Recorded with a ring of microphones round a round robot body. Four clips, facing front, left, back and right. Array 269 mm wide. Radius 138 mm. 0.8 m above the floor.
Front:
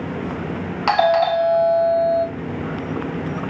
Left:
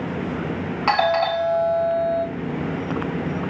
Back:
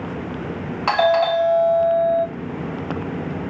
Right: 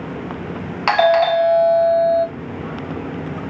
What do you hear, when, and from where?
0.9 s a doorbell: 80° right, 1.1 m